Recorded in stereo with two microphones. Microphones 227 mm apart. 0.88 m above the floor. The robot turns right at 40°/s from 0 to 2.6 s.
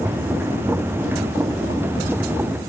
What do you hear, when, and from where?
Only background noise.